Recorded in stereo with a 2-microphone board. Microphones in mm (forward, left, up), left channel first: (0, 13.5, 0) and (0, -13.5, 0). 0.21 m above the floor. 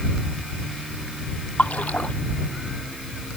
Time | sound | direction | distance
1.6 | a splash | 65° left (ahead or behind) | ?